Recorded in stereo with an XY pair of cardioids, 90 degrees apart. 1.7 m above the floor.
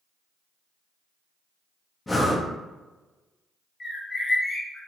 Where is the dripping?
I don't hear dripping.